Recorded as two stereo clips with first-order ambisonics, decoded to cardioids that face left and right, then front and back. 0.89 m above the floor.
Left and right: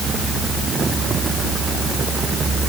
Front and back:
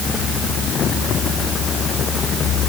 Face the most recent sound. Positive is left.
No sound to turn to.